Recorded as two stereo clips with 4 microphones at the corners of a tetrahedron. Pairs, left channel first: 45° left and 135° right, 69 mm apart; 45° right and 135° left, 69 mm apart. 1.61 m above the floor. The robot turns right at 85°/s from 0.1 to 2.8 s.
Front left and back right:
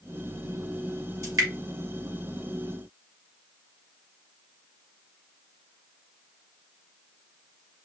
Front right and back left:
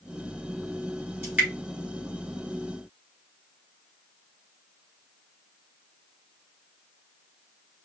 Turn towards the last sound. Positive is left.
turn(degrees=-40)